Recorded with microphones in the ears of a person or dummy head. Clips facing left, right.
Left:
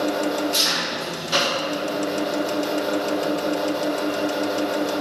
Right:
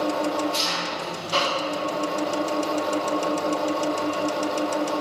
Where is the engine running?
20° left (ahead or behind), 0.8 m.